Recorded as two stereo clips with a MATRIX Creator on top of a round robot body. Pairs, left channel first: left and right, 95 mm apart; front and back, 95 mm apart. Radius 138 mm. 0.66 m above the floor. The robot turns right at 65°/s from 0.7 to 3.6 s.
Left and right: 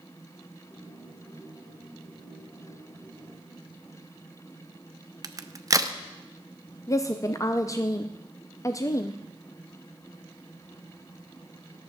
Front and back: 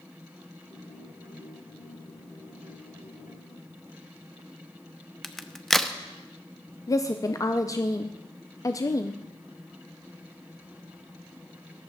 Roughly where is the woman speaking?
Ahead left.